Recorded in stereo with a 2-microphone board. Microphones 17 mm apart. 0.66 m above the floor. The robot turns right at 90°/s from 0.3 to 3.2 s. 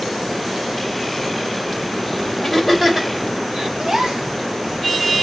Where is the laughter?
25° left (ahead or behind), 3 m; by 3.7 s 45° right (ahead or behind), 3 m.